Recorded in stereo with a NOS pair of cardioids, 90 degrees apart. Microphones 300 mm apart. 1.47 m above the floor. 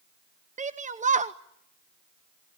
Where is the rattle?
I don't hear a rattle.